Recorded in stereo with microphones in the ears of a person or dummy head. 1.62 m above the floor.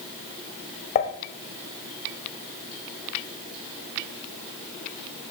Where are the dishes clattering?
35° left (ahead or behind), 1.4 m.